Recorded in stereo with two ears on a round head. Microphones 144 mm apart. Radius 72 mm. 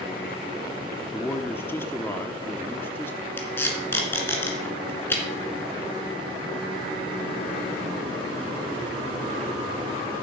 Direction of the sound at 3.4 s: 15° left (ahead or behind).